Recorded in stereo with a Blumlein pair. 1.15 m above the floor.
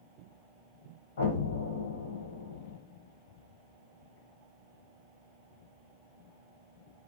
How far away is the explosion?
About 0.8 m.